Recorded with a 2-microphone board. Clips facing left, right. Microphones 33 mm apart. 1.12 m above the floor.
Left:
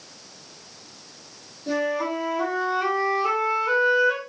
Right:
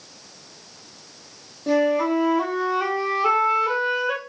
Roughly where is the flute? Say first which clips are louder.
Right 5 dB; right.